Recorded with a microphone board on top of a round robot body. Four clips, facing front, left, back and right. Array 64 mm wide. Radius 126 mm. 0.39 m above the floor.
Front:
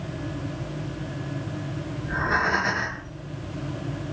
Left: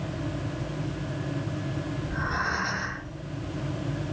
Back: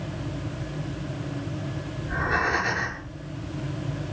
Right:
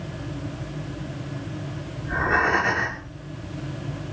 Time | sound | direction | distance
2.0 | breathing | 50° right | 5.5 m